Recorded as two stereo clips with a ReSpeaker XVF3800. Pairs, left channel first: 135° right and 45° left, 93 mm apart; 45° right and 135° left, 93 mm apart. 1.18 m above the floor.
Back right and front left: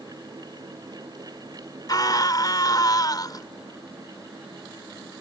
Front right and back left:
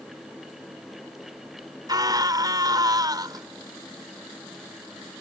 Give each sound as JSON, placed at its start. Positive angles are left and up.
{"t": 1.9, "sound": "a scream", "azimuth_deg": 180}